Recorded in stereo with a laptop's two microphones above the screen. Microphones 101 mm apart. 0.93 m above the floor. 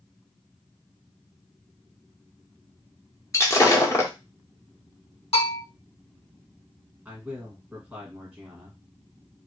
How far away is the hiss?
No hiss in this recording.